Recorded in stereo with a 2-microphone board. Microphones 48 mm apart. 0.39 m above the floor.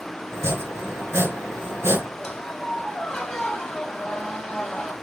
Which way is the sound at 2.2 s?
10° left (ahead or behind).